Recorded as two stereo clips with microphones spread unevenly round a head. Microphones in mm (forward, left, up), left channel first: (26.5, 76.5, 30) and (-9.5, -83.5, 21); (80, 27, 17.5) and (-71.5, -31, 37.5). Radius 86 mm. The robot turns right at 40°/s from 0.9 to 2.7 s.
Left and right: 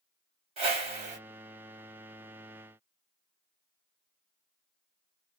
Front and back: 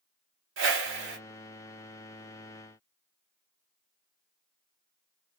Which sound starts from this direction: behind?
A whoosh, at 0.6 s.